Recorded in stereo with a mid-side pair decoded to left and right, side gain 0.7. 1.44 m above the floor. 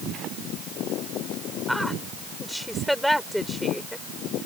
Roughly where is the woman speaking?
Ahead.